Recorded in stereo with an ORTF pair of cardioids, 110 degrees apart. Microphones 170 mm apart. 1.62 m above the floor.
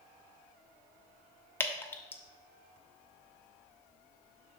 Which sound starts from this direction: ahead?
Dripping, at 1.6 s.